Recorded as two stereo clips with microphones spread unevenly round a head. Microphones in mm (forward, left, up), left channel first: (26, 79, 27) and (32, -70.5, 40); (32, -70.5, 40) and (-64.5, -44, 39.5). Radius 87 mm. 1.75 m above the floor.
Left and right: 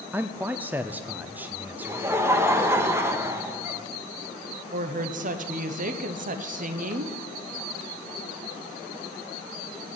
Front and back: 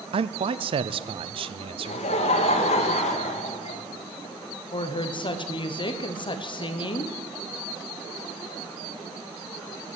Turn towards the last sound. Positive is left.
turn(degrees=-55)